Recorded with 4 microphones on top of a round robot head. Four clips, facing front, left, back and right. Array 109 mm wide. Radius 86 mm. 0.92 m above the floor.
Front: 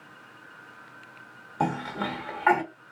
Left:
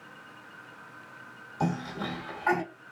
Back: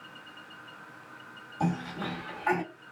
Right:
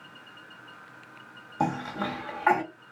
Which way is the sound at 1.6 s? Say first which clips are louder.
Right 3 dB, front 4 dB; 40° right.